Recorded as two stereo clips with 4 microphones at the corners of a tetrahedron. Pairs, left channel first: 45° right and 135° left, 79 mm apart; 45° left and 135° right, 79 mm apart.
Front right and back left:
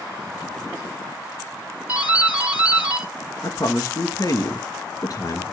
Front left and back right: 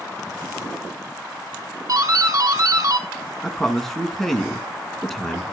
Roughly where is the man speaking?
Ahead right.